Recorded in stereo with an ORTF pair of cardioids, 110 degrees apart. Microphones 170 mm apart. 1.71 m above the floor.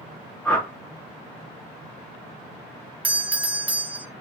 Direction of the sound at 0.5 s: 10° left.